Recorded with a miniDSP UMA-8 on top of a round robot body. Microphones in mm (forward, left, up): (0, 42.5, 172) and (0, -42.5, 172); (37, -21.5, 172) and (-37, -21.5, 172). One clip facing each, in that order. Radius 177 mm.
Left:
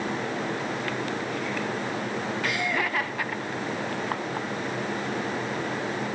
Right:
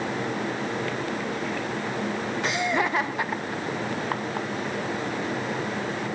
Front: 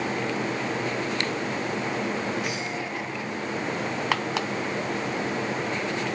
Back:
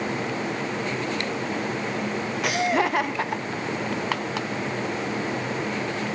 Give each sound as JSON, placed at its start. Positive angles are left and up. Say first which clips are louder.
{"t": 2.4, "sound": "laughter", "louder": "right 4 dB, back 8 dB", "azimuth_deg": -155, "distance_m": 1.1}